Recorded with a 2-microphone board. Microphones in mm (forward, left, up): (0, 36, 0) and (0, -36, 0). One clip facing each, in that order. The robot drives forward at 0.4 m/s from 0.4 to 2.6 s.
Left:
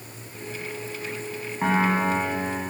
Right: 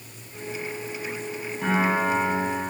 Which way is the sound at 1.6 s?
50° left (ahead or behind).